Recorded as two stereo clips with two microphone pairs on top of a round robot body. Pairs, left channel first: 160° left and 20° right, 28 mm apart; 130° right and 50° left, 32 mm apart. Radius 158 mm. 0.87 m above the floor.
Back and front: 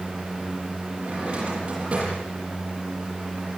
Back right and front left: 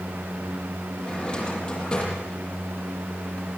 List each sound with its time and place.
1.0 s a drawer: 70° right, 9.5 m